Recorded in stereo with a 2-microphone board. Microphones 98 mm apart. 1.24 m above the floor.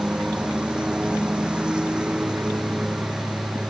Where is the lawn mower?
10° right (ahead or behind).